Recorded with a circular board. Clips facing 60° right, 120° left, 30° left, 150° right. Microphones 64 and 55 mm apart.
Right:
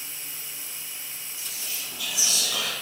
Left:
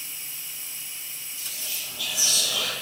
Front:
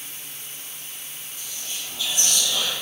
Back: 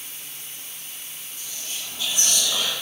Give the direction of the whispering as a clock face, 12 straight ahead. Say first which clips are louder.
Even, even; 4 o'clock.